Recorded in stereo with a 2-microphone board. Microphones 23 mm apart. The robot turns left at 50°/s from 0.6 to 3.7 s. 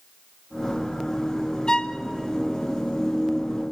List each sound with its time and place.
1.7 s a violin: 25° left (ahead or behind), 0.5 m; by 2.0 s 35° left (ahead or behind), 0.5 m